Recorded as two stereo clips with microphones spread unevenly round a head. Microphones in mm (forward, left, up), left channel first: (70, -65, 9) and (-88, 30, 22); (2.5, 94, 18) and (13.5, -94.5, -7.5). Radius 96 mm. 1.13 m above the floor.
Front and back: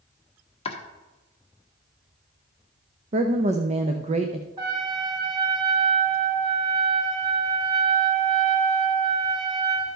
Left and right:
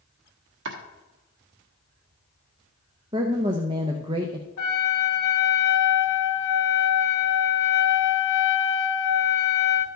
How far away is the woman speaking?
About 0.7 m.